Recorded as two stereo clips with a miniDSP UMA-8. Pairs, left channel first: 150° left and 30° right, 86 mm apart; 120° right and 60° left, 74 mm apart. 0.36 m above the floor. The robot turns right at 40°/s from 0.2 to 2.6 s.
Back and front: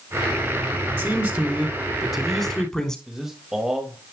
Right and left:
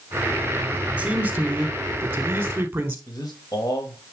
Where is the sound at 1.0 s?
10° left, 1.3 m; by 3.0 s 75° left, 1.3 m.